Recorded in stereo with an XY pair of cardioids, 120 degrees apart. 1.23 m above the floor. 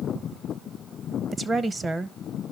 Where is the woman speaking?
25° right, 0.7 m.